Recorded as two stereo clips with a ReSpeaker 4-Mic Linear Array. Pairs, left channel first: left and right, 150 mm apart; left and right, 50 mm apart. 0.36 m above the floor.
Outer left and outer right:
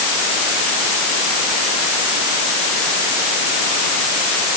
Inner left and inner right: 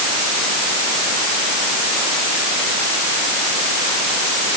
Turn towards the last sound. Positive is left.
No sound to turn to.